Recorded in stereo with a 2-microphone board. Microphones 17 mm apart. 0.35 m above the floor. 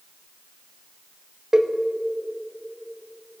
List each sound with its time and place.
1.5 s a cowbell: 40° right (ahead or behind), 0.6 m